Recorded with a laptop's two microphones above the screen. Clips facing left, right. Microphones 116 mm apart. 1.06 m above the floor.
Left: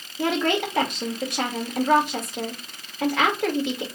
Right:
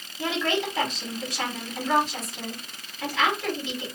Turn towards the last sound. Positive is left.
turn(degrees=60)  # may be behind; listen again after turning